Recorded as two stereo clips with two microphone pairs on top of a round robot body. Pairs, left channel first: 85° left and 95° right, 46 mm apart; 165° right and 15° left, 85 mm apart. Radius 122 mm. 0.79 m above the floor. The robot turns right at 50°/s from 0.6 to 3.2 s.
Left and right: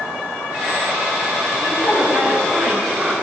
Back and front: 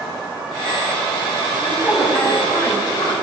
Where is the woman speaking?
105° left, 3.5 m; by 3.1 s straight behind, 3.5 m.